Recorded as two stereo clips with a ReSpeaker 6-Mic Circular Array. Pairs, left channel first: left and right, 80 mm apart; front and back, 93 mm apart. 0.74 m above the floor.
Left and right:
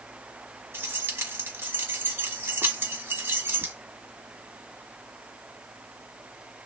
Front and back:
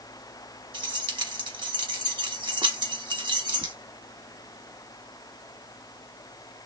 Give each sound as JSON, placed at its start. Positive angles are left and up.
{"t": 0.7, "sound": "keys jangling", "azimuth_deg": -150, "distance_m": 1.0}